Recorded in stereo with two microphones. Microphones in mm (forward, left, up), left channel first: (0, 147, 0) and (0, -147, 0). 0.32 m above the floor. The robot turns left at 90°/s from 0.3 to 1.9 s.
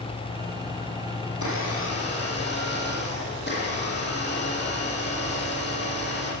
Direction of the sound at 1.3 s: 90° left.